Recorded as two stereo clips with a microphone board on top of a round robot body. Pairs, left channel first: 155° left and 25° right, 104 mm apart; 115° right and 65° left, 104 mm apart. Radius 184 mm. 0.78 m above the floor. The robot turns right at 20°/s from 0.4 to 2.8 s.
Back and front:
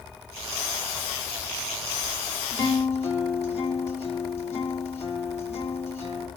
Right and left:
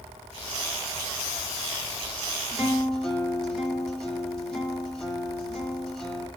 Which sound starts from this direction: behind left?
A guitar, at 2.5 s.